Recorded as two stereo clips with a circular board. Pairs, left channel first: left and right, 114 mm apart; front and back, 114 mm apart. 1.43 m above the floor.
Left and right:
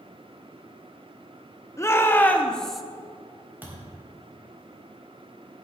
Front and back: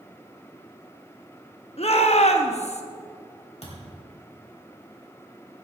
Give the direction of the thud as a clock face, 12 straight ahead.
1 o'clock.